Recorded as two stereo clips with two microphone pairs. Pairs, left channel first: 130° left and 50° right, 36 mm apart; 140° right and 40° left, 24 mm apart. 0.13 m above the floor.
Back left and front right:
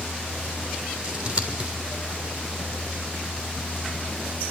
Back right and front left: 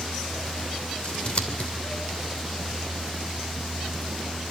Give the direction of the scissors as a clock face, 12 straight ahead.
4 o'clock.